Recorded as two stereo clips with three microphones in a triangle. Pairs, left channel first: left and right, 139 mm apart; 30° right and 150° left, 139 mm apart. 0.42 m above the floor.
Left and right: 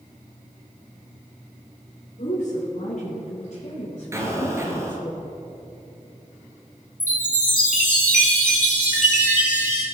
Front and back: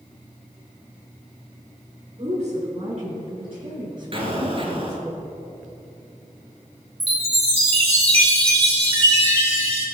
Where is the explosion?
160° right, 2 m.